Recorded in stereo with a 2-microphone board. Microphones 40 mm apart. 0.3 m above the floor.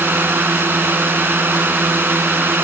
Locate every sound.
0.0 s a drone: 65° right (ahead or behind)